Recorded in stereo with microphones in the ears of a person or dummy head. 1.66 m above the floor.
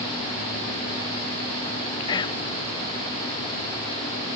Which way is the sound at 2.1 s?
25° left (ahead or behind).